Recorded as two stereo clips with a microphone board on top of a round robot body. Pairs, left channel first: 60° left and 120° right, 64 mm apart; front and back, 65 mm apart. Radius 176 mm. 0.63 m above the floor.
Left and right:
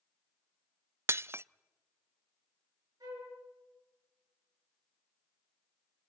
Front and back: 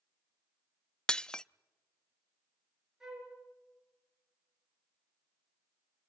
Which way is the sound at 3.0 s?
100° right.